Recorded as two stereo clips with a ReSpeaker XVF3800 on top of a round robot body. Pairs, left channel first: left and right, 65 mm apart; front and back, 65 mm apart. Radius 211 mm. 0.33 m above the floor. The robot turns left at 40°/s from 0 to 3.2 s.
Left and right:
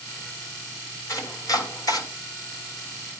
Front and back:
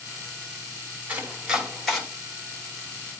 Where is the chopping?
120° left, 3 m; by 2.0 s 80° left, 3 m.